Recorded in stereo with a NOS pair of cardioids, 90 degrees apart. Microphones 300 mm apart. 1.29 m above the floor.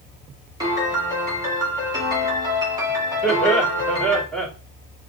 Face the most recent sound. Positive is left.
turn(degrees=5)